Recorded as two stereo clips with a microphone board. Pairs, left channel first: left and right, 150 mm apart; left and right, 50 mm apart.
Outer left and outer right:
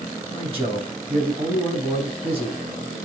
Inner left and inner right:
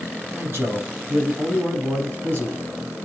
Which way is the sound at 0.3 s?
40° right (ahead or behind).